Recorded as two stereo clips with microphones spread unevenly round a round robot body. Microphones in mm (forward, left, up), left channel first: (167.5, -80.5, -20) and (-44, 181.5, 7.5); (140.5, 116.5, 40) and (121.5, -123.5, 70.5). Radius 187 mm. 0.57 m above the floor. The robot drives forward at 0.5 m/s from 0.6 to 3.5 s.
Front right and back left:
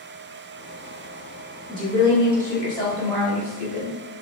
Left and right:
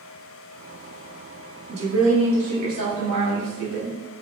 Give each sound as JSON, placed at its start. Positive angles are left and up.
{"t": 1.7, "sound": "a woman speaking", "azimuth_deg": -120, "distance_m": 1.5}